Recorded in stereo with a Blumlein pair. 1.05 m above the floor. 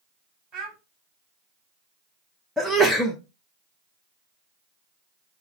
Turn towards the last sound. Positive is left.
turn(degrees=0)